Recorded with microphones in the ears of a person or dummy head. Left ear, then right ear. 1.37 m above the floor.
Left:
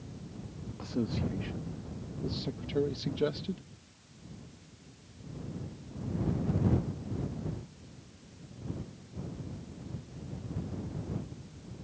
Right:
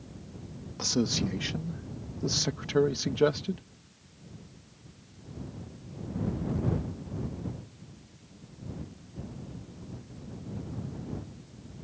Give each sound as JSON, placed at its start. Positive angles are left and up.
{"t": 0.8, "sound": "a man speaking", "side_deg": -80}